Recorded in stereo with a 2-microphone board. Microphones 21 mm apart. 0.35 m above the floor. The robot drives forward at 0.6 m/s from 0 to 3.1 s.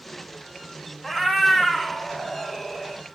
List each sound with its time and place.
1.0 s a cat meowing: 5° right (ahead or behind), 1.3 m